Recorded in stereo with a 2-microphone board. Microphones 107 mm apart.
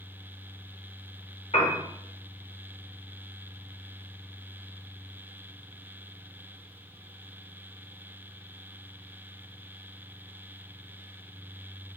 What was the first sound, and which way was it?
A piano, 70° left (ahead or behind).